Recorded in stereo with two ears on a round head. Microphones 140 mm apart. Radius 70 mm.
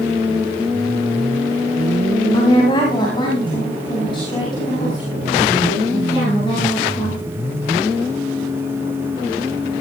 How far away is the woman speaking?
About 3 m.